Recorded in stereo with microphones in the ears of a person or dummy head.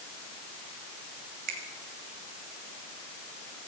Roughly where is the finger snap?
Right.